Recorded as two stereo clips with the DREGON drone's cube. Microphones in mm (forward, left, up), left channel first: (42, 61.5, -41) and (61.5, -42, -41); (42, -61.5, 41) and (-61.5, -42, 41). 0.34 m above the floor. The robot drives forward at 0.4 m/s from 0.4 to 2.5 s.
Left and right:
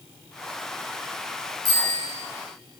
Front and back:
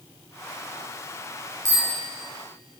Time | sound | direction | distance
1.6 | a bicycle bell | 130° right | 5.5 m